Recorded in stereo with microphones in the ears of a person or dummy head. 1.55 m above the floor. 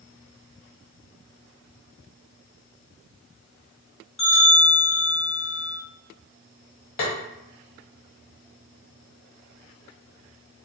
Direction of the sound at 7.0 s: 30° left (ahead or behind).